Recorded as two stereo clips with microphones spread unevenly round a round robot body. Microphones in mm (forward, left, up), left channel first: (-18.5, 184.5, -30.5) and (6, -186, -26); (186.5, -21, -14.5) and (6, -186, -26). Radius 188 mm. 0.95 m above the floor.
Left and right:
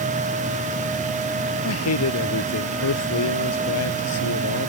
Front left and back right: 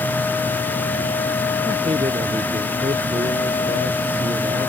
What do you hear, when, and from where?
1.6 s a man speaking: 145° left